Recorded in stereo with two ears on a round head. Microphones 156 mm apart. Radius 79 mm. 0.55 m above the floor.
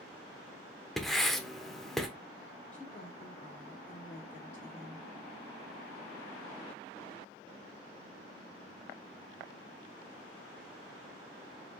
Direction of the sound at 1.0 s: Centre (ahead or behind).